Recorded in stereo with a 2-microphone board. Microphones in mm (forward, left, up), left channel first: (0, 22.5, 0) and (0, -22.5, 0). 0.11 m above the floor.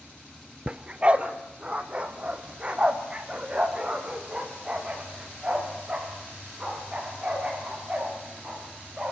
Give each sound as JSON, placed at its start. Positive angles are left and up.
{"t": 0.7, "sound": "a dog barking", "side_deg": -25, "distance_m": 0.8}